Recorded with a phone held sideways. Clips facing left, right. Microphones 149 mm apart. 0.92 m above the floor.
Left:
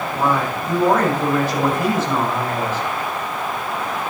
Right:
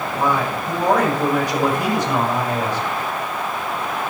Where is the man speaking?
15° right (ahead or behind), 4.5 m.